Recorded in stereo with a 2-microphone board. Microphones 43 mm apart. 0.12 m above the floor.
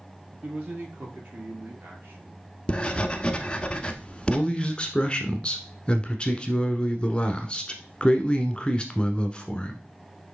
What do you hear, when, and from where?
0.3 s a man speaking: 40° right (ahead or behind), 3.5 m; by 2.4 s 60° right (ahead or behind), 2.5 m
2.7 s writing: 20° left (ahead or behind), 0.9 m
4.3 s a man speaking: 25° left (ahead or behind), 1.1 m